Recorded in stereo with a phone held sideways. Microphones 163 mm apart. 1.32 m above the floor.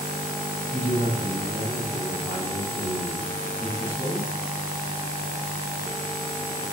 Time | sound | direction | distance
0.7 | a man speaking | 55° right (ahead or behind) | 4 m